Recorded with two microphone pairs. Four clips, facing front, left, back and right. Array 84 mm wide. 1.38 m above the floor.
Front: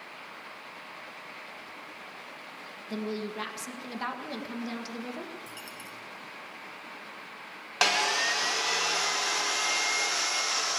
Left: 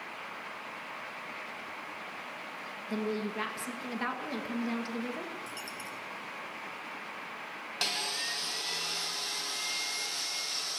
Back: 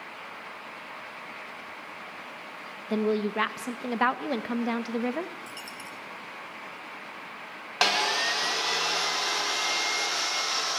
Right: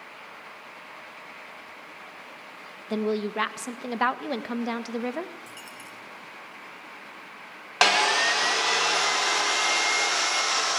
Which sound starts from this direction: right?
Sawing, at 7.8 s.